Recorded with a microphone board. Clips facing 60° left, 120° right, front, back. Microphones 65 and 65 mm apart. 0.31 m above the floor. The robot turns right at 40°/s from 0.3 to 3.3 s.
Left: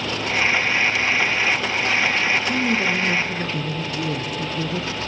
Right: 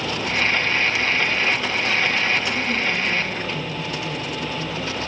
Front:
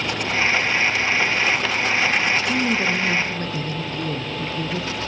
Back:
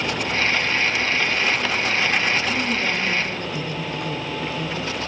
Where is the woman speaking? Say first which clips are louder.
Left 2 dB, front 2 dB; 15° left, 3.5 m; by 4.9 s 45° left, 3.5 m.